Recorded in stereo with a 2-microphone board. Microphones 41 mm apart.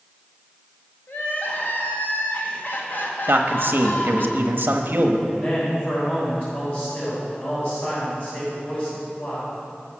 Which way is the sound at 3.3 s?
55° right (ahead or behind).